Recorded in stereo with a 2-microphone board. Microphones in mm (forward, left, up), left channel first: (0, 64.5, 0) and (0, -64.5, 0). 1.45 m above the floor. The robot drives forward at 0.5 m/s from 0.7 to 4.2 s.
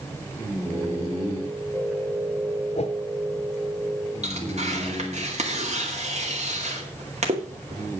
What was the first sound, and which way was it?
A whoosh, 55° left (ahead or behind).